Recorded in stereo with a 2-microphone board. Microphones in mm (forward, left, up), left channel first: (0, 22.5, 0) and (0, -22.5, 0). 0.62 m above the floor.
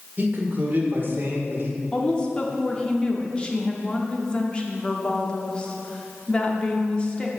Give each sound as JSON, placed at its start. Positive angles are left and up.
{"t": 0.2, "sound": "a man speaking", "side_deg": -40, "distance_m": 1.6}
{"t": 1.9, "sound": "a woman speaking", "side_deg": 20, "distance_m": 1.0}